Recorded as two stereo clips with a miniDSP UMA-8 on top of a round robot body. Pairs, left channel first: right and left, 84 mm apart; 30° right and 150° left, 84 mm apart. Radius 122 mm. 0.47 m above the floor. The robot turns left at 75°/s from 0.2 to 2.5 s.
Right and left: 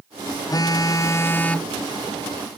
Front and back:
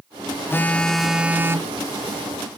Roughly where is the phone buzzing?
Right.